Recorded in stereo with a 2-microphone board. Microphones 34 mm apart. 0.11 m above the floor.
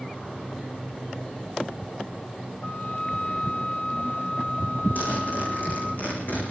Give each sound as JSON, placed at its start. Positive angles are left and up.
{"t": 2.6, "sound": "a flute", "side_deg": 70, "distance_m": 1.5}
{"t": 5.0, "sound": "a zipper", "side_deg": 55, "distance_m": 9.0}